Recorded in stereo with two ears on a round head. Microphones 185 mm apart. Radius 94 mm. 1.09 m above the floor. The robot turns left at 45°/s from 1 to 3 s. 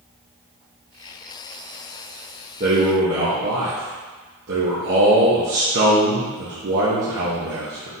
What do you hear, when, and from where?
2.6 s a man speaking: 40° right (ahead or behind), 1.0 m; by 7.9 s 55° right (ahead or behind), 1.0 m